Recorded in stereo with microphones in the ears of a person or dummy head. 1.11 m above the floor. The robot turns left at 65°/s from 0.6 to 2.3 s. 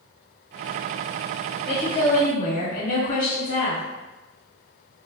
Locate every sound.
1.7 s a woman speaking: 170° left, 1.1 m; by 3.8 s 130° left, 1.1 m